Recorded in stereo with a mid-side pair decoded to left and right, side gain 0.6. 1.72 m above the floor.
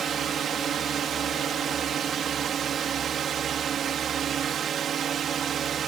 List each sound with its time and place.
0.0 s a drone: 45° right